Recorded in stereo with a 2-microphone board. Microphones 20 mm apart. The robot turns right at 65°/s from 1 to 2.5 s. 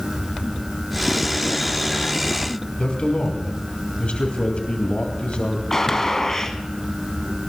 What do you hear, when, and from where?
2.8 s a man speaking: 60° left (ahead or behind), 3 m
5.7 s a gunshot: 20° left (ahead or behind), 1.3 m